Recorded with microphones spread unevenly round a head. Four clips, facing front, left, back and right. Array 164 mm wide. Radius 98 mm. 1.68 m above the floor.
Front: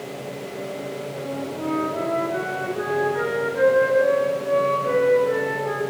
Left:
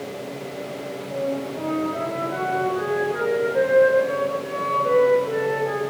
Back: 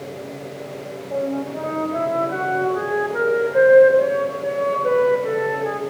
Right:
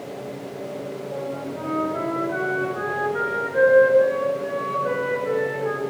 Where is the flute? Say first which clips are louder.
Left 6 dB, back 5 dB; straight behind, 4.5 m.